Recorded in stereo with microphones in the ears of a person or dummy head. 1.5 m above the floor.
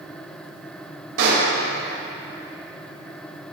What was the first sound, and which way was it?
A pop, 70° right (ahead or behind).